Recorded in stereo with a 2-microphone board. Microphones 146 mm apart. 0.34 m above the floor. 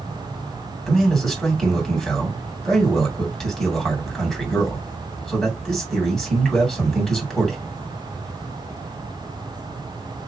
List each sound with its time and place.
0.9 s a man speaking: 5° left (ahead or behind), 2.5 m